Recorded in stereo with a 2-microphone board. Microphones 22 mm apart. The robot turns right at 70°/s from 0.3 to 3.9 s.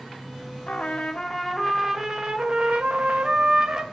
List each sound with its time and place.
0.7 s a trumpet: 110° left, 0.6 m; by 3.8 s 25° right, 0.6 m